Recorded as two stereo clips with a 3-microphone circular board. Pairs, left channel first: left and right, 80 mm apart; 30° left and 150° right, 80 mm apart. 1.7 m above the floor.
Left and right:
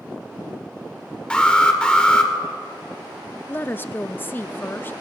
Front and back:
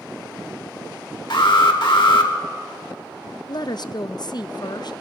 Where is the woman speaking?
30° left, 0.5 m.